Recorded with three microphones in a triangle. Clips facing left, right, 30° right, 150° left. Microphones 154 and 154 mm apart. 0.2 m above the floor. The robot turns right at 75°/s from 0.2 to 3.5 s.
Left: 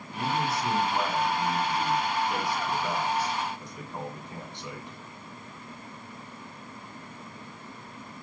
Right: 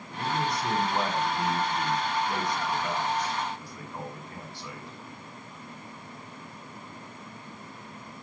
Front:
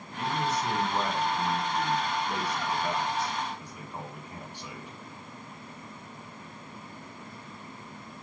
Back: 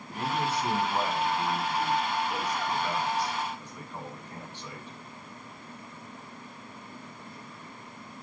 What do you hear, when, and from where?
0.1 s a man speaking: 150° left, 1.9 m; by 5.0 s 40° left, 1.9 m